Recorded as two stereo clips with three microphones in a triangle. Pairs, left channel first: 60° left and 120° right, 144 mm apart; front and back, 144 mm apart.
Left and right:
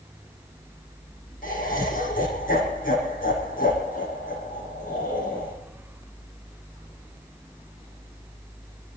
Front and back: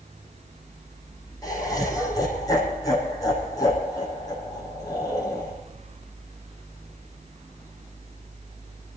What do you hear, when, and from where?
1.4 s laughter: 65° left, 5 m